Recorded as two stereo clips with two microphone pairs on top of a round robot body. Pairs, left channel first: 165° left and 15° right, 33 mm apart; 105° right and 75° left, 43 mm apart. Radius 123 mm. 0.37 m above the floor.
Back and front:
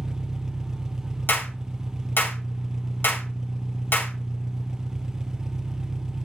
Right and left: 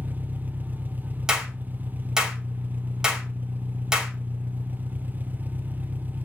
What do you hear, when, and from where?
0.0 s an engine running: 45° left, 0.9 m
1.3 s a clap: 140° left, 2.5 m